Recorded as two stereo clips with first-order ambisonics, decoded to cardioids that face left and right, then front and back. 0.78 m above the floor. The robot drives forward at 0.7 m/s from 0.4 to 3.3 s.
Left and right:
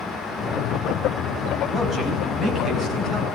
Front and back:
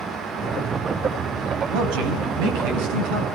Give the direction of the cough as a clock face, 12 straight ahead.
No cough in this recording.